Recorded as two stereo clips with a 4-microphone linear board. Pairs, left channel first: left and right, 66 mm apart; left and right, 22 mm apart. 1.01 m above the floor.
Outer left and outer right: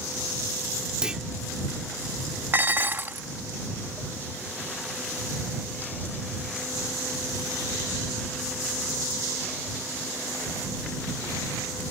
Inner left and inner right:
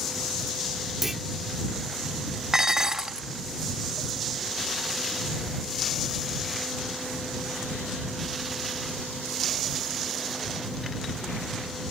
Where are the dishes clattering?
35° right (ahead or behind).